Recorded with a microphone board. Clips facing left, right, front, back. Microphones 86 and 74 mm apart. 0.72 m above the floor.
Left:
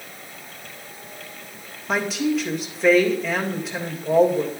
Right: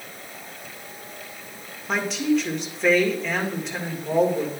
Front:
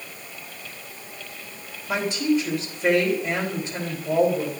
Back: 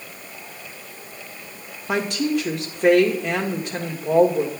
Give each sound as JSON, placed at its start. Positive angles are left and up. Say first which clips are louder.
{"t": 1.9, "sound": "a woman speaking", "louder": "even, even", "azimuth_deg": 180, "distance_m": 1.9}